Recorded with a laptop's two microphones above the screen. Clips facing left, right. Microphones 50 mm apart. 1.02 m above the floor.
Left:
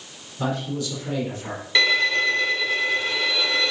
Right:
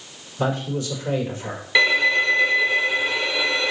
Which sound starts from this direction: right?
A man speaking, at 0.4 s.